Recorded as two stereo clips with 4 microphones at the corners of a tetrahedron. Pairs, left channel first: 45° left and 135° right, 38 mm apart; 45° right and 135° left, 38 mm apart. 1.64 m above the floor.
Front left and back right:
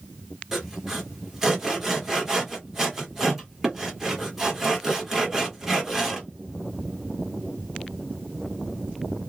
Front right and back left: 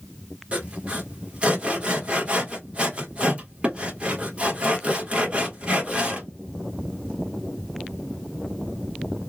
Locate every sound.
0.5 s sawing: 155° left, 1.4 m